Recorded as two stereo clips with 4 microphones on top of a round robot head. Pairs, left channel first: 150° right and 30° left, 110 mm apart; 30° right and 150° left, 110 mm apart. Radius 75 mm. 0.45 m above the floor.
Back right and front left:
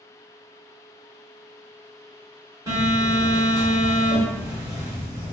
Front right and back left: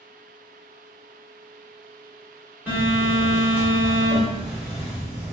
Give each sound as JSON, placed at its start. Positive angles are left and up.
{"t": 2.7, "sound": "a phone buzzing", "azimuth_deg": 75, "distance_m": 1.8}